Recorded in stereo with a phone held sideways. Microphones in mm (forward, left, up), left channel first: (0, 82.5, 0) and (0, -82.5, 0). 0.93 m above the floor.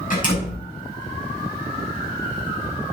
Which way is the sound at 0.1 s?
55° left (ahead or behind).